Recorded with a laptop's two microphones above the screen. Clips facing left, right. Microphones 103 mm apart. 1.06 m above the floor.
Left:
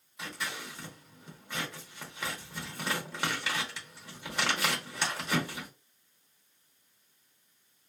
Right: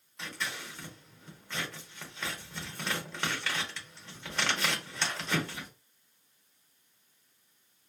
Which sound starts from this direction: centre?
Scissors, at 0.2 s.